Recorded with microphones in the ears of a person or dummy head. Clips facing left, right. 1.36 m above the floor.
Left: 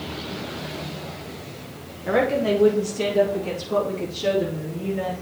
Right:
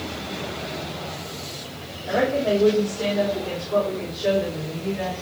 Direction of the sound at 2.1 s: 80° left.